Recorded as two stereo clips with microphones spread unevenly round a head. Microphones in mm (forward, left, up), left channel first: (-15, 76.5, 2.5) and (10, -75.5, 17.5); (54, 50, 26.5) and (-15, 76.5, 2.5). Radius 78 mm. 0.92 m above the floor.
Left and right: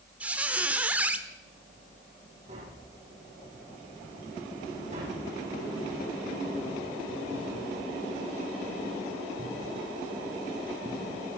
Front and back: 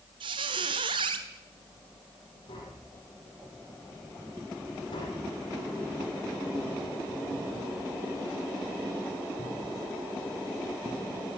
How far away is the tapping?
About 8.5 m.